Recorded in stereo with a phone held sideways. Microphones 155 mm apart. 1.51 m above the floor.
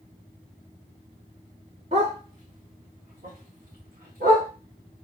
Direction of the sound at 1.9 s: 45° right (ahead or behind).